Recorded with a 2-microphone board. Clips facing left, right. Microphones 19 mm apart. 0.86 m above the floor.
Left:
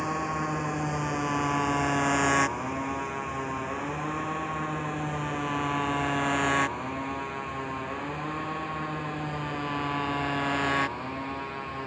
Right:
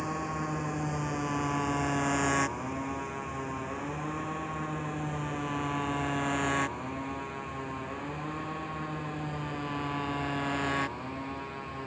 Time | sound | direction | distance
0.0 | a motorcycle | 20° left (ahead or behind) | ?